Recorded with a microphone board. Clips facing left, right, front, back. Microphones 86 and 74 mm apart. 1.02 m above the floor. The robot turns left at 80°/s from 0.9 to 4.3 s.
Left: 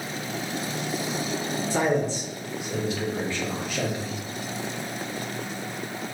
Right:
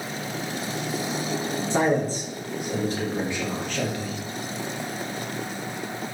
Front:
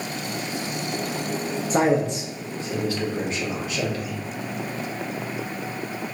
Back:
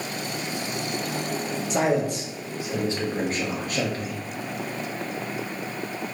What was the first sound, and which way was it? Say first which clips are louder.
A man speaking: right 2 dB, front 3 dB; 30° right.